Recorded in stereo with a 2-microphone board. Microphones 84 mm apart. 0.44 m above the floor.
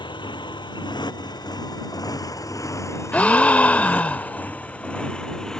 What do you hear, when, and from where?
0.0 s a motorcycle: 75° left (ahead or behind); by 5.6 s 5° left (ahead or behind)
3.1 s a gasp: 20° left (ahead or behind)